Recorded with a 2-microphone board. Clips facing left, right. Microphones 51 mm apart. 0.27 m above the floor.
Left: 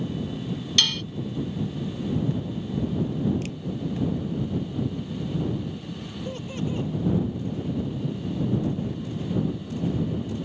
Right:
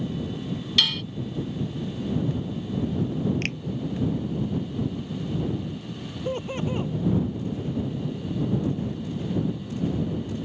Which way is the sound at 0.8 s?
5° right (ahead or behind).